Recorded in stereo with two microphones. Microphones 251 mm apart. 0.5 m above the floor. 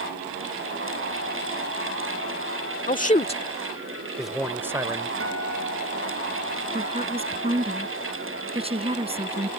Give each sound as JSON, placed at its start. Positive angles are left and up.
{"t": 2.9, "sound": "a man speaking", "side_deg": 35}
{"t": 5.2, "sound": "a guitar", "side_deg": -65}
{"t": 6.7, "sound": "a woman speaking", "side_deg": -25}